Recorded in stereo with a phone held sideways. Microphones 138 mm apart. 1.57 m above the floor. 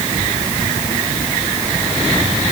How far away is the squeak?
I don't hear a squeak.